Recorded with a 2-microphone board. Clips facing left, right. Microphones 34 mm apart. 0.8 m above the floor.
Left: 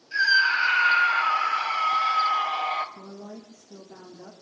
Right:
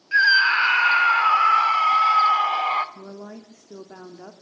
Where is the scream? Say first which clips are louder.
Right 4 dB; 40° right (ahead or behind), 2 m.